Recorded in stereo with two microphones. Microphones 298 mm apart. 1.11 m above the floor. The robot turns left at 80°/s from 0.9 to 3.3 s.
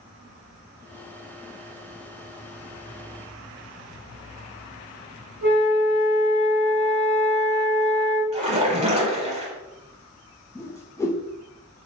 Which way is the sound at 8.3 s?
25° right (ahead or behind).